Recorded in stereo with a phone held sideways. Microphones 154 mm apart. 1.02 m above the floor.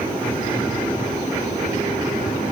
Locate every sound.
Only background noise.